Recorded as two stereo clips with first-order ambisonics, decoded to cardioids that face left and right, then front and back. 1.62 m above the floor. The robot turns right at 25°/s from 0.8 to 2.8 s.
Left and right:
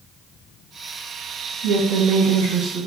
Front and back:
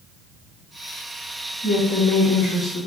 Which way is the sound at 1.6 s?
90° right.